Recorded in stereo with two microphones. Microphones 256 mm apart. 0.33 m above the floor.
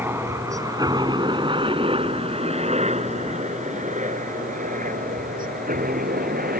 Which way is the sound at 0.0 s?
10° right (ahead or behind).